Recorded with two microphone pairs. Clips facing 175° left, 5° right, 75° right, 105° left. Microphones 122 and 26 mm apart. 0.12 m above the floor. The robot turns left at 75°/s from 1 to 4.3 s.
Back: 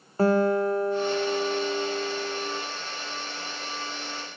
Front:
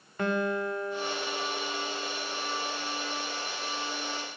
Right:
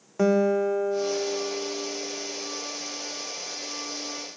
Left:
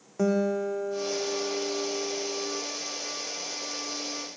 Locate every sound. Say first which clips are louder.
0.2 s a guitar: back 8 dB, right 4 dB; 135° right, 3 m; by 2.6 s 105° left, 3 m